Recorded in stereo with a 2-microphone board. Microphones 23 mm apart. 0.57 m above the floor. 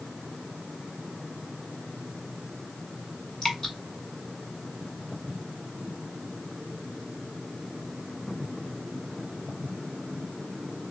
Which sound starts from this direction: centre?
Dripping, at 3.4 s.